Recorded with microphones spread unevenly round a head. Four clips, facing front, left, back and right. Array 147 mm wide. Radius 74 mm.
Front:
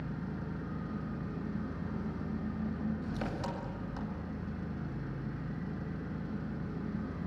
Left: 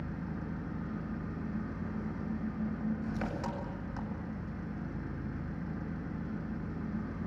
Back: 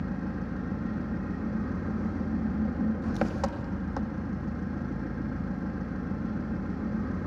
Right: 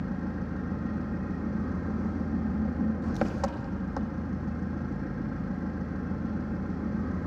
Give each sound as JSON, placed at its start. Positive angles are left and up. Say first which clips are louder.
{"t": 0.0, "sound": "an engine running", "louder": "right 6 dB, back 7 dB", "azimuth_deg": -135, "distance_m": 2.0}